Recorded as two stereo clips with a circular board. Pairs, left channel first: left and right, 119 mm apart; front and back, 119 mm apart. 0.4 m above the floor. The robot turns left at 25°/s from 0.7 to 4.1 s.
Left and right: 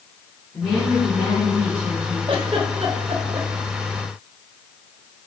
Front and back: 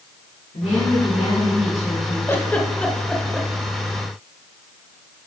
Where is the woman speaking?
30° left, 3 m; by 2.2 s 5° right, 3 m.